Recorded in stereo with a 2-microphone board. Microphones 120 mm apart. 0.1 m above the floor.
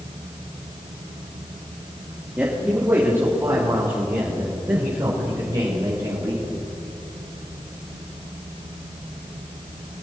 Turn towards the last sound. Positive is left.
turn(degrees=-35)  # may be behind; listen again after turning